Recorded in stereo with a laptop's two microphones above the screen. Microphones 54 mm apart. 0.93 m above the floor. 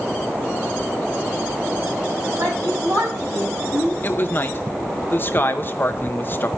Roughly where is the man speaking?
Left.